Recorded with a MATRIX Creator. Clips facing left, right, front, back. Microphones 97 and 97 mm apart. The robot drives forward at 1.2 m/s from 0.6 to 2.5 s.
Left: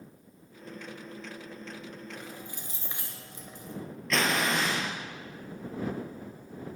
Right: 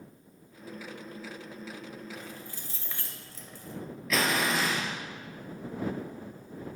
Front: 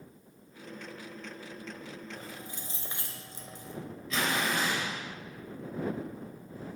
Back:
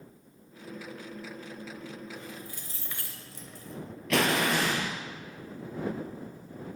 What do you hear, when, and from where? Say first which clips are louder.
2.1 s keys jangling: even, back 1 dB; 20° left, 1.1 m; by 3.8 s 35° left, 0.9 m
4.1 s an explosion: even, back 5 dB; 175° right, 1.3 m